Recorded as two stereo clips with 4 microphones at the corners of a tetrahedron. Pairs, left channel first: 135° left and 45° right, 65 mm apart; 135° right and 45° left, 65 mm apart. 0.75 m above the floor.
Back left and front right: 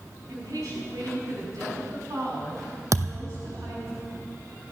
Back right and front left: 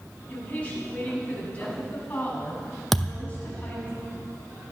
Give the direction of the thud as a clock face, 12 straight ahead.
2 o'clock.